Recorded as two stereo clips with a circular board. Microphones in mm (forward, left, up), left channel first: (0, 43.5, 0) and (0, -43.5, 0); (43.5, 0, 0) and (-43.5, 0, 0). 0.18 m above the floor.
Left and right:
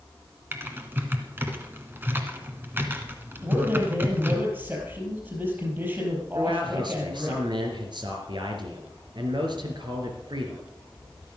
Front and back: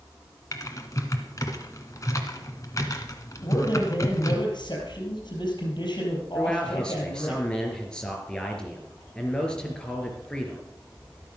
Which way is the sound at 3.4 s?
30° right.